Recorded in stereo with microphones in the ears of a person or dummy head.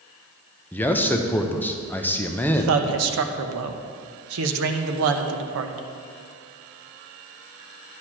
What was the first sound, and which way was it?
A man speaking, 5° left (ahead or behind).